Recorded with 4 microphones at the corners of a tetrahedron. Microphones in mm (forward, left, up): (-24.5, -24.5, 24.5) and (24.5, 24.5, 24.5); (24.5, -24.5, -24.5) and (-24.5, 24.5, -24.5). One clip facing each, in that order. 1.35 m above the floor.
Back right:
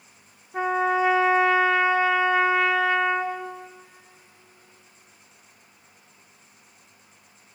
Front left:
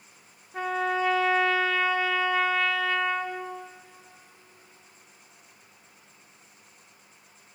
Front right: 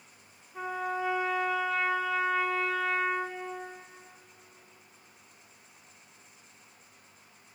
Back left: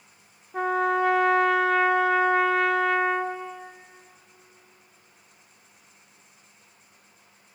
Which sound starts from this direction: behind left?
A trumpet, at 0.5 s.